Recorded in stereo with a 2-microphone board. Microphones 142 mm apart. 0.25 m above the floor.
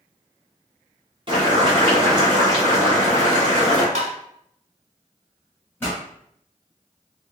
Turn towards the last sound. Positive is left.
turn(degrees=15)  # may be behind; listen again after turning